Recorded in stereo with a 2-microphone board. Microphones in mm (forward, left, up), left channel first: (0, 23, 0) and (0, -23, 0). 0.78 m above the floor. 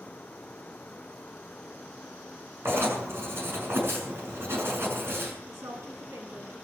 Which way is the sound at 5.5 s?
80° right.